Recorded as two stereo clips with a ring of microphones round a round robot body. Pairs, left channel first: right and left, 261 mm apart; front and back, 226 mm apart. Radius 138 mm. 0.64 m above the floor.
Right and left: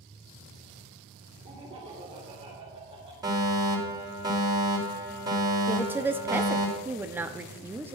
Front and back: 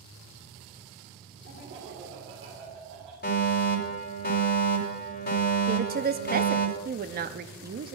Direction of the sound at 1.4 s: 155° left.